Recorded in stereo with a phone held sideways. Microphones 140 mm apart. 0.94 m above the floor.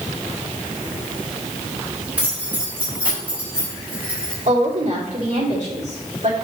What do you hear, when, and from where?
2.2 s keys jangling: 10° right (ahead or behind), 3.5 m
4.5 s a woman speaking: 65° right (ahead or behind), 3 m